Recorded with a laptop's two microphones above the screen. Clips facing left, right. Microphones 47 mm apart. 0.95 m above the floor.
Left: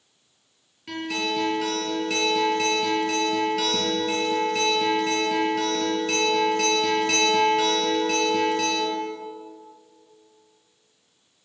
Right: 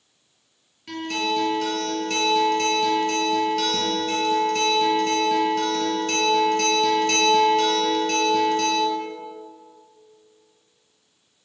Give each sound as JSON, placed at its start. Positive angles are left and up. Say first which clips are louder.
{"t": 0.9, "sound": "a guitar", "louder": "right 2 dB", "side_deg": 5, "distance_m": 4.0}